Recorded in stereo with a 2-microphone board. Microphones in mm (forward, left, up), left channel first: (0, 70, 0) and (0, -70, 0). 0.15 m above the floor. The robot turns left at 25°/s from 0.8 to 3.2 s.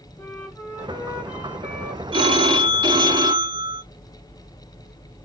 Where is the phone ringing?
35° right (ahead or behind), 0.8 m; by 3.8 s 30° right (ahead or behind), 0.8 m.